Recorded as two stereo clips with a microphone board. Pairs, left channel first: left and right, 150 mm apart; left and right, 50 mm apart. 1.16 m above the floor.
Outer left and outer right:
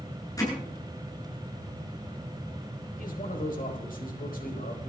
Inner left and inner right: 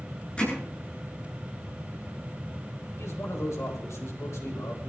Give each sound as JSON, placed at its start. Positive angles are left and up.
{"t": 0.4, "sound": "hammering", "side_deg": 25, "distance_m": 9.0}
{"t": 3.0, "sound": "a man speaking", "side_deg": 75, "distance_m": 4.0}